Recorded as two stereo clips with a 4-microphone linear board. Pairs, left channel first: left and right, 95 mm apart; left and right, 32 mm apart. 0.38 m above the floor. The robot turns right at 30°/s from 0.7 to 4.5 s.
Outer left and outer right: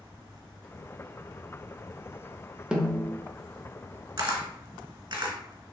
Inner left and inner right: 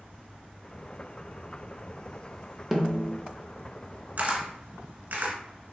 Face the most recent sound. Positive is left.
turn(degrees=-60)  # may be behind; listen again after turning